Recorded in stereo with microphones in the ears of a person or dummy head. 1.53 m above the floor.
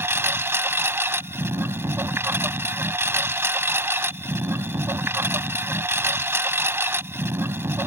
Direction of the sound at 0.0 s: 15° right (ahead or behind).